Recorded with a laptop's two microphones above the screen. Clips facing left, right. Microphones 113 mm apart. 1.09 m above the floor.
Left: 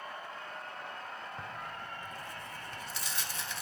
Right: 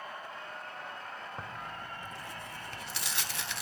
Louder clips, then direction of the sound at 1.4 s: Right 1 dB; 70° right (ahead or behind).